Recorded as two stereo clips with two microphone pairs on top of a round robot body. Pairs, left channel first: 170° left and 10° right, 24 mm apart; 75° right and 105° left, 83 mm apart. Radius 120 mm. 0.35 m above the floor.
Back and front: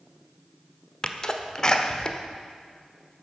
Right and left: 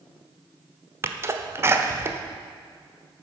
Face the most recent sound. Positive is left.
turn(degrees=145)